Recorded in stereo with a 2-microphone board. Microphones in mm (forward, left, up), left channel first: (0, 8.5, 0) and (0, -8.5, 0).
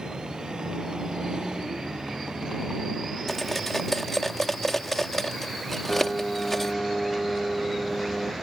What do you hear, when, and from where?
0.0 s a vehicle: 50° right (ahead or behind)
3.3 s cutlery clinking: 20° left (ahead or behind)
5.9 s a piano: 75° left (ahead or behind)